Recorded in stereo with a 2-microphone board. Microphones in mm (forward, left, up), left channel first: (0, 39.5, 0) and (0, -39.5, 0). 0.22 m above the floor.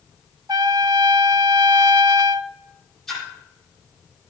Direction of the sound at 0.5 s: 60° right (ahead or behind).